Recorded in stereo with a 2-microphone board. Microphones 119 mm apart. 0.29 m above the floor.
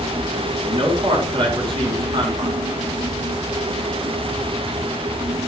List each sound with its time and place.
0.6 s a man speaking: 50° right (ahead or behind), 4 m